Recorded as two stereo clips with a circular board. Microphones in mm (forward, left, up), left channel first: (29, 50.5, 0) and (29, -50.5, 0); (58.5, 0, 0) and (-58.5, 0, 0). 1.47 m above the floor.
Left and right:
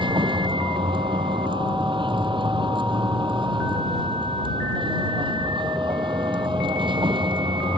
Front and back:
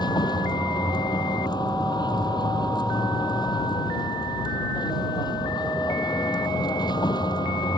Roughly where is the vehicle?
Ahead right.